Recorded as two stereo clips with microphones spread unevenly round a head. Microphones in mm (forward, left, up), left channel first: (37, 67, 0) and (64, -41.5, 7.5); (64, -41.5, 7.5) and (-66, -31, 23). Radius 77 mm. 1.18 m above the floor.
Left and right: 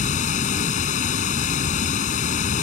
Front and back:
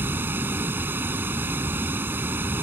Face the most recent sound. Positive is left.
turn(degrees=100)